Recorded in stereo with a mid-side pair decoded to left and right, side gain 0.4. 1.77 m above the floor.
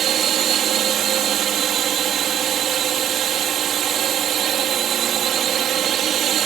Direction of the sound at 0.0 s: 70° right.